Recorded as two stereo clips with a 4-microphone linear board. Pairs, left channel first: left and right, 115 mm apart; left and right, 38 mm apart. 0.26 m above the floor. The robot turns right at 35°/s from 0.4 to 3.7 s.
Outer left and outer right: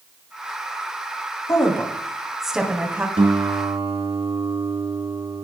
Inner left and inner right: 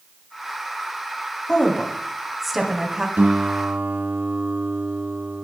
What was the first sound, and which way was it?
A woman speaking, 25° left (ahead or behind).